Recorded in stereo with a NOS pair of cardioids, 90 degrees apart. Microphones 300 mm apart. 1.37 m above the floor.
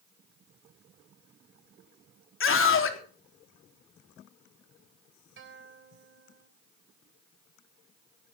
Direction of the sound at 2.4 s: 45° left.